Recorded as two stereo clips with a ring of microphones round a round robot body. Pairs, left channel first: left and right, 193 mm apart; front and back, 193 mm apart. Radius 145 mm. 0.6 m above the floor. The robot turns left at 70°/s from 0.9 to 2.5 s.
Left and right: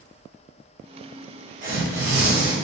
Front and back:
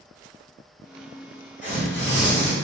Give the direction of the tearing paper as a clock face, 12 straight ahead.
2 o'clock.